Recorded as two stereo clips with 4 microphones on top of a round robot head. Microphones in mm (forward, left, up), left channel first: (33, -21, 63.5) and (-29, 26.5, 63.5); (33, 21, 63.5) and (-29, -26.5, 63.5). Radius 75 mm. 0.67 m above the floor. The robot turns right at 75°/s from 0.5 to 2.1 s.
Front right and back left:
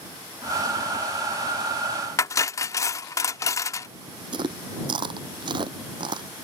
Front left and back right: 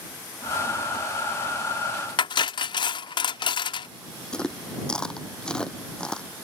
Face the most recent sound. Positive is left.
turn(degrees=120)